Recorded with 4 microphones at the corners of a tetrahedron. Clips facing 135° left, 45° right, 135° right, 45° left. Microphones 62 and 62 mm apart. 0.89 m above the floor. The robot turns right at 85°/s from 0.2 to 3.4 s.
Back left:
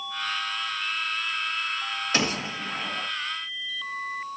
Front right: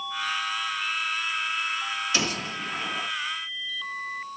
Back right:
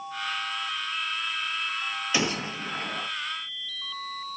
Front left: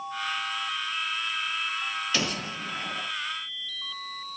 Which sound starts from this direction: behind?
A gunshot, at 2.1 s.